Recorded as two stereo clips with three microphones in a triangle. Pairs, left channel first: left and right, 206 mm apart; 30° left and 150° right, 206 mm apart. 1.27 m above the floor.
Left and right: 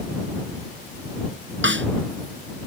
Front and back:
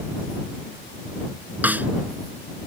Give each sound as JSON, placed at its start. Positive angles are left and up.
{"t": 1.6, "sound": "a snare drum", "azimuth_deg": -70}